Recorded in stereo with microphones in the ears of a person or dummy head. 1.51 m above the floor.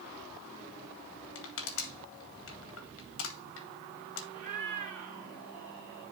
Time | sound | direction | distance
1.4 | crushing | 80° left | 1.9 m
4.3 | a cat meowing | 5° right (ahead or behind) | 6.5 m